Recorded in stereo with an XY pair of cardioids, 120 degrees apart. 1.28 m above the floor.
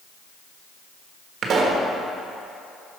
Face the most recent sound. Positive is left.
turn(degrees=-45)